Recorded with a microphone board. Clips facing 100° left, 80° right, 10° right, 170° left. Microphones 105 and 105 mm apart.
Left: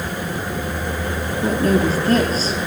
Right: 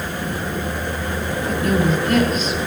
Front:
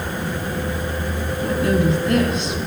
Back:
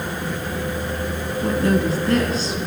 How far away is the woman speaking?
About 1.7 m.